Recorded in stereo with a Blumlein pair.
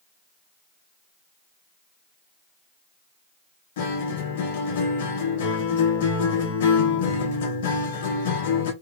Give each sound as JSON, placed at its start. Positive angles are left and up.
{"t": 3.8, "sound": "a guitar", "azimuth_deg": 55, "distance_m": 0.9}